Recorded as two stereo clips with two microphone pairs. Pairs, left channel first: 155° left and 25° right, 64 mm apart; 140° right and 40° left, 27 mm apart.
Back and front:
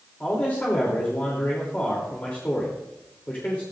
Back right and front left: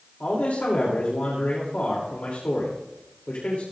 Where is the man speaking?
135° right, 3 m.